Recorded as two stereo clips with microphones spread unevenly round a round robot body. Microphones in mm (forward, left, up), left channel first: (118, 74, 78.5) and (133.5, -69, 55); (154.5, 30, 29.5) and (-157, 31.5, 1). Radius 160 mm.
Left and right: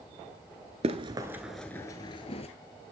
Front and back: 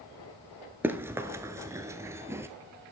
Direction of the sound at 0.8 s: 95° right.